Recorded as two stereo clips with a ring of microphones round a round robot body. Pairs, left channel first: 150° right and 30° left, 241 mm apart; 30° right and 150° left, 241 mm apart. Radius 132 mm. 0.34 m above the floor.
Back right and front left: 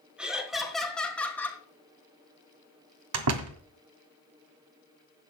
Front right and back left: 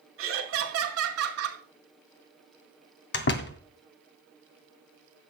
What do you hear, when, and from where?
0.2 s laughter: 115° left, 4.5 m; by 1.6 s 130° left, 4 m
3.1 s a door slam: 15° left, 1.9 m